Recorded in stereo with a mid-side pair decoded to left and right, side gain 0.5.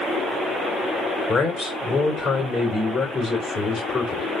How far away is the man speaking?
About 2 m.